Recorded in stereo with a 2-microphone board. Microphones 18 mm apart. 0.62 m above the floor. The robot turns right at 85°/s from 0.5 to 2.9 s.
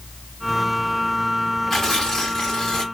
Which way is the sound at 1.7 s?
25° left.